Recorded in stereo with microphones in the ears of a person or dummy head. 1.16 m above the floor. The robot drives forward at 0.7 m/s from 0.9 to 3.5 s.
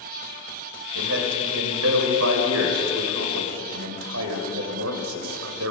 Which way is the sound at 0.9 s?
75° right (ahead or behind).